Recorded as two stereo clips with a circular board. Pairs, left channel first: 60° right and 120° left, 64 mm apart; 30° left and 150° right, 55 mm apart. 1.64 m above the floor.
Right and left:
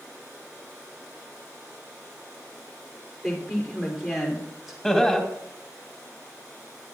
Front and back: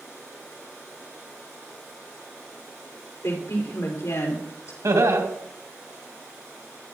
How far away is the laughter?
About 2.5 m.